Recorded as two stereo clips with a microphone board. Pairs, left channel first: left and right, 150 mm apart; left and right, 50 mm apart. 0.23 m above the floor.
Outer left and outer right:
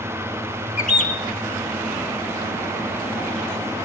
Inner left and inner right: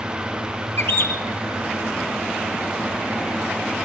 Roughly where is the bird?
Left.